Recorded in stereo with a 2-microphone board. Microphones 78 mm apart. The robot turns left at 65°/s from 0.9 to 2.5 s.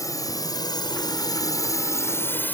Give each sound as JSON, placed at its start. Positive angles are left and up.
{"t": 0.0, "sound": "a drone", "side_deg": 45}